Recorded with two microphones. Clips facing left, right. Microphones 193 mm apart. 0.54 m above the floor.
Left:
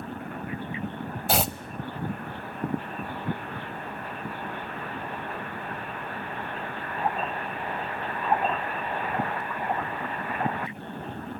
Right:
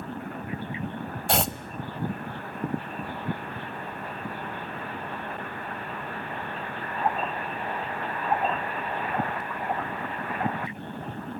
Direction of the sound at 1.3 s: Centre (ahead or behind).